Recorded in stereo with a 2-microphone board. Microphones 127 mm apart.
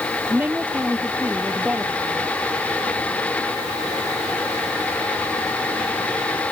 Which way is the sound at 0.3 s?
10° right (ahead or behind).